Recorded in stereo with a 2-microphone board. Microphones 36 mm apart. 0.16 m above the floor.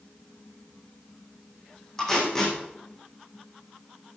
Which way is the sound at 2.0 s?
10° left (ahead or behind).